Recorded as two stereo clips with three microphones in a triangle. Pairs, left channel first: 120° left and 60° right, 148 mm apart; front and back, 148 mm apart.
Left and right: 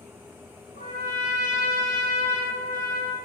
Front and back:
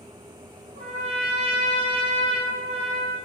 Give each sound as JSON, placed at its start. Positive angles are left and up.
{"t": 0.8, "sound": "a trumpet", "azimuth_deg": 140, "distance_m": 4.0}